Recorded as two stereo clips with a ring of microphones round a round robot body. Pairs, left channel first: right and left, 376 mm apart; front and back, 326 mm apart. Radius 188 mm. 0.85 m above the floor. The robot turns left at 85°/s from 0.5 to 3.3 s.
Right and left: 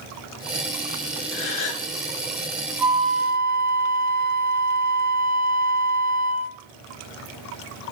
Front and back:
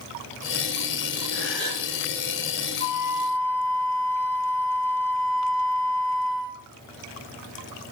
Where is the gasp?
75° right, 3.5 m; by 1.9 s 125° right, 3.5 m.